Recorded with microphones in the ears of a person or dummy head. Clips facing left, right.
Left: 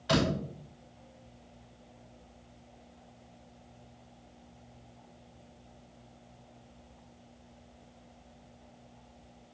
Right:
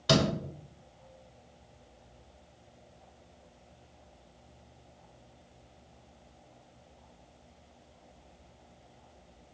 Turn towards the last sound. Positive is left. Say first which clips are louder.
# right 2 dB
turn(degrees=-60)  # may be behind; listen again after turning